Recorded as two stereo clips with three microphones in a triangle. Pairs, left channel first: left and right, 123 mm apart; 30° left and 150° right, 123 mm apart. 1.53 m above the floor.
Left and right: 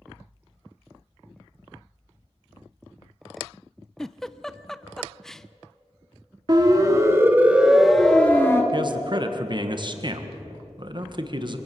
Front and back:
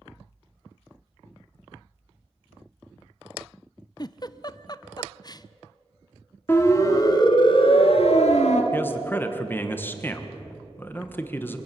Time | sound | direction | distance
4.0 | a giggle | 5° left | 0.5 m
6.5 | a siren | 40° right | 2.5 m
8.7 | a man speaking | 45° right | 1.6 m